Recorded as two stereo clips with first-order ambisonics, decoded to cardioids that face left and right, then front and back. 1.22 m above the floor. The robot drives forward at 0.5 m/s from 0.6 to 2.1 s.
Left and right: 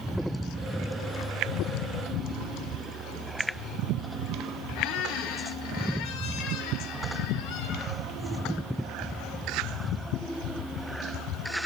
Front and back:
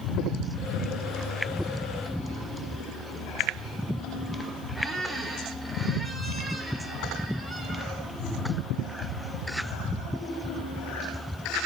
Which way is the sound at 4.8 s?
90° left.